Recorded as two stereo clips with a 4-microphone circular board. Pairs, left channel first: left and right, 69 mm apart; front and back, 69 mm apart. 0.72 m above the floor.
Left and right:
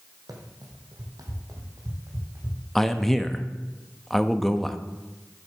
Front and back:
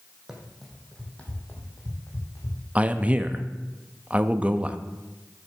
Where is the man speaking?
175° left, 0.5 m.